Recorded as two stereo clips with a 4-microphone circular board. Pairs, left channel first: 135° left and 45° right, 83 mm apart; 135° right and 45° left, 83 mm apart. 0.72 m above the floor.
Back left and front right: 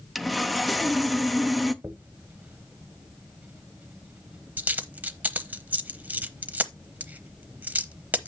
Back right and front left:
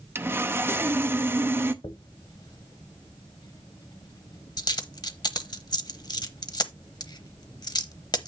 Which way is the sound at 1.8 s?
110° right.